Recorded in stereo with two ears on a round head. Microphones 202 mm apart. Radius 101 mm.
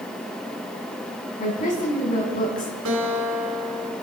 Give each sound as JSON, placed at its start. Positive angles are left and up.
{"t": 1.4, "sound": "a woman speaking", "side_deg": 35, "distance_m": 5.0}
{"t": 2.9, "sound": "a guitar", "side_deg": -65, "distance_m": 4.5}